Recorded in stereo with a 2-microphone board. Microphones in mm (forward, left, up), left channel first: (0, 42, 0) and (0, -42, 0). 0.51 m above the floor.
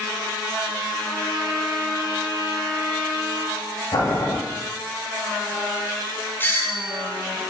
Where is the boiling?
55° left (ahead or behind), 3.5 m.